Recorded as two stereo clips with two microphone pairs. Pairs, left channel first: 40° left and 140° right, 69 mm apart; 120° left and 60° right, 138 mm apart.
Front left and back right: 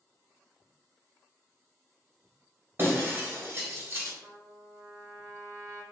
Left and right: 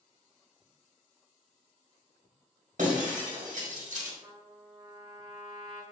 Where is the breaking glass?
85° right, 1.1 m.